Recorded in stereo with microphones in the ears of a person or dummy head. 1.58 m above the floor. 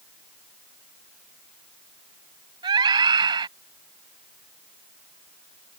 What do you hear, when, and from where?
2.6 s a scream: 20° right (ahead or behind)